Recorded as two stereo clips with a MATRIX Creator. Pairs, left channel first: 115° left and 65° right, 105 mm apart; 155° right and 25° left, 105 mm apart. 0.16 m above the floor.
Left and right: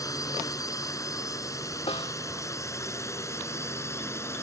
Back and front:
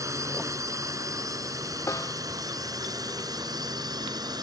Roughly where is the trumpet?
No trumpet in this recording.